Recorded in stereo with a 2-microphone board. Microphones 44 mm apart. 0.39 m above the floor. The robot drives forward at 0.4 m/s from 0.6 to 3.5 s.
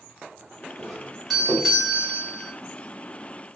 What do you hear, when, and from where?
0.8 s a doorbell: 5° right (ahead or behind), 1.3 m